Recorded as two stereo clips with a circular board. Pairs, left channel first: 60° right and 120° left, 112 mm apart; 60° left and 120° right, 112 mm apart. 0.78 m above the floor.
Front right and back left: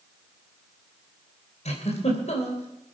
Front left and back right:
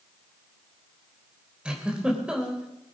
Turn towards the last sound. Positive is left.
turn(degrees=-35)